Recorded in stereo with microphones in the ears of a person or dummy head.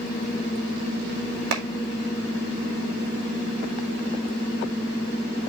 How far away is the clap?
About 2 m.